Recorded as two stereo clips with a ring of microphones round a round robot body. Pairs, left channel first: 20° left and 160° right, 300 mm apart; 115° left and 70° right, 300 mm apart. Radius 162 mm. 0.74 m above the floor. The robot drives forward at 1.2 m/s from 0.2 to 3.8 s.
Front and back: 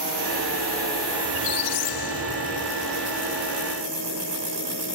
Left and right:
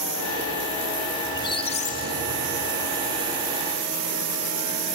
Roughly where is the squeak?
Ahead left.